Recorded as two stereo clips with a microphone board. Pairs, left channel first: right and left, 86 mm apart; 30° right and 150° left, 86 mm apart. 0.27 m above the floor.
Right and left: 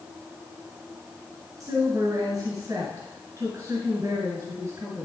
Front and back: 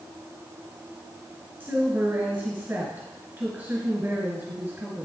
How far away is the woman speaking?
About 1.9 m.